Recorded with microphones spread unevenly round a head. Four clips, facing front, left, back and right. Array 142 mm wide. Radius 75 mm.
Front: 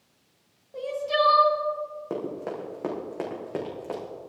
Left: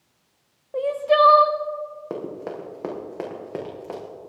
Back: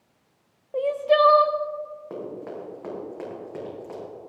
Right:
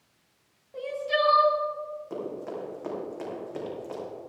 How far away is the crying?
About 0.7 m.